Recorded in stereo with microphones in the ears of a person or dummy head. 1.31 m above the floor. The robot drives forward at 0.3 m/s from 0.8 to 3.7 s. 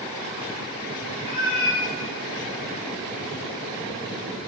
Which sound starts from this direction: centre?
A cat meowing, at 1.2 s.